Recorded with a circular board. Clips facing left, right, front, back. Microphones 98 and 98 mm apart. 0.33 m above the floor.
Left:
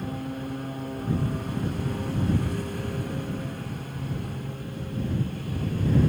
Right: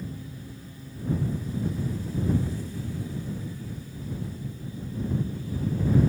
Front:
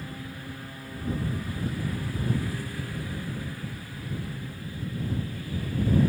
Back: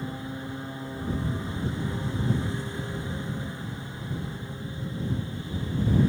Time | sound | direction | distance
0.0 | a lawn mower | 115° left | ?